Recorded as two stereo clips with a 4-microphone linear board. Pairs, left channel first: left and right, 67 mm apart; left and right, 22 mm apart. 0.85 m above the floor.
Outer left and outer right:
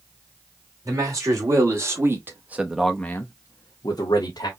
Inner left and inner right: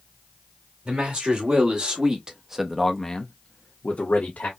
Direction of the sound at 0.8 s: 45° right (ahead or behind).